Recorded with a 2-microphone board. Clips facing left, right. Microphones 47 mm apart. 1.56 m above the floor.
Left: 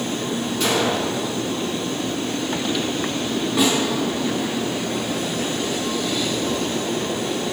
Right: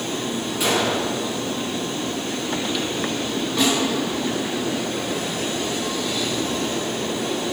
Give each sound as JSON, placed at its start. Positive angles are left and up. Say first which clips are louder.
{"t": 0.6, "sound": "a gunshot", "louder": "even", "side_deg": -10, "distance_m": 2.5}
{"t": 3.6, "sound": "a snare drum", "louder": "left 1 dB", "side_deg": 5, "distance_m": 3.5}